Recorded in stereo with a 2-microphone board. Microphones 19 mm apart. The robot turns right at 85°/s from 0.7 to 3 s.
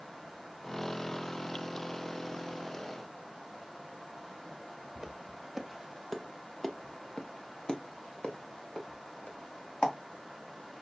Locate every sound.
5.0 s footsteps: 30° right (ahead or behind), 1.3 m; by 9.9 s 80° left, 2.5 m